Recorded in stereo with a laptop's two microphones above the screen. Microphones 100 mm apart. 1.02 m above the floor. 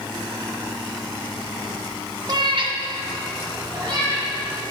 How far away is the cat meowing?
About 0.7 m.